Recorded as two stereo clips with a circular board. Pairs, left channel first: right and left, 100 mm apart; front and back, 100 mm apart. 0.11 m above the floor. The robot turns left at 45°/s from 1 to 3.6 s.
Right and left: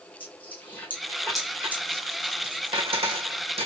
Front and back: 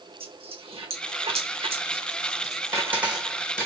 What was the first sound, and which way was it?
A dropped coin, 165° right.